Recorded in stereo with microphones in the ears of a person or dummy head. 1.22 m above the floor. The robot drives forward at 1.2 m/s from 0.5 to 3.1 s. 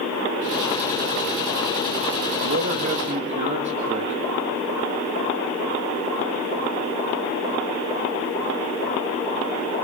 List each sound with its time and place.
2.4 s a man speaking: 55° right (ahead or behind), 1.9 m; by 4.3 s 40° right (ahead or behind), 2.5 m